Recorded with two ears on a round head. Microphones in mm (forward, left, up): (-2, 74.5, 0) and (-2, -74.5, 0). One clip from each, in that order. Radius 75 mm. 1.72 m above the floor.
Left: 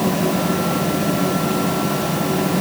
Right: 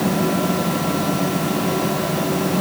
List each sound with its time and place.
Only background noise.